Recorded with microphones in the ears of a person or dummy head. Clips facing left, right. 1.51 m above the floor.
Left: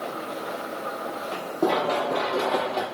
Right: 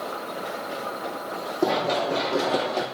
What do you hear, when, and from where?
1.6 s running footsteps: 15° right (ahead or behind), 3 m; by 2.9 s 25° right (ahead or behind), 3 m